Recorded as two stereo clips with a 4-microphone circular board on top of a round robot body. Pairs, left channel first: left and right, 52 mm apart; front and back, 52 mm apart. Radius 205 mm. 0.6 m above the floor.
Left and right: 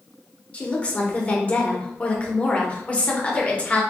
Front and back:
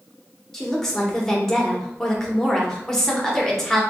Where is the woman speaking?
70° left, 1.2 m.